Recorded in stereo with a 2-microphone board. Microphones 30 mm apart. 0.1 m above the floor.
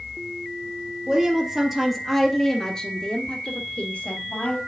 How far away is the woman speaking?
About 2.5 m.